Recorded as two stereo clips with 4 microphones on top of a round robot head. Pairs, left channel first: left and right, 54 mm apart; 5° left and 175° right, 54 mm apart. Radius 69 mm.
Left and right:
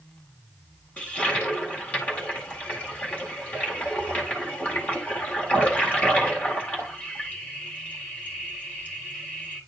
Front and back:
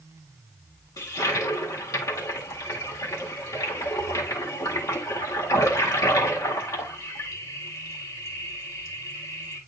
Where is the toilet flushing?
25° left, 1.8 m.